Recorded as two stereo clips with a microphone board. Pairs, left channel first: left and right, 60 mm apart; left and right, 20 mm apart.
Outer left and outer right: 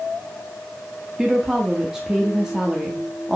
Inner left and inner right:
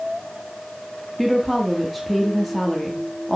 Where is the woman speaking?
10° right (ahead or behind), 1.3 m.